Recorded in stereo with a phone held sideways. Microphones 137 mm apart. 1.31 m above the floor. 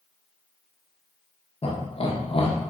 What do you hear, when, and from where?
1.6 s laughter: 45° left (ahead or behind), 0.7 m